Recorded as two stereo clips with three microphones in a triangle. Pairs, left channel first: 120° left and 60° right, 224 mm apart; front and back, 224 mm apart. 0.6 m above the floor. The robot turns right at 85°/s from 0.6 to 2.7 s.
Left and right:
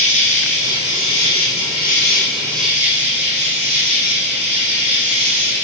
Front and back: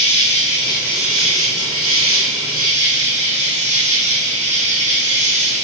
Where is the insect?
60° left, 5 m; by 5.6 s 120° right, 5 m.